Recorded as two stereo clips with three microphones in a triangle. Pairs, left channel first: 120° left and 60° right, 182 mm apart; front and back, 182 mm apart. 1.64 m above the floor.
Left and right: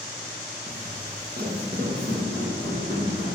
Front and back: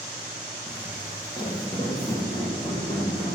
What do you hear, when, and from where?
0.7 s footsteps: 65° right, 2.5 m